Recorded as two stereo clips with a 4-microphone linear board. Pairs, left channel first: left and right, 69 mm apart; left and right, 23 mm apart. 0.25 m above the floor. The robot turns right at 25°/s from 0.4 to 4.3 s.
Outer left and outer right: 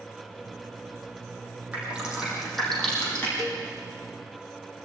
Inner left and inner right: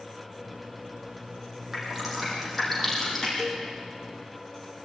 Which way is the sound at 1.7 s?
20° right (ahead or behind).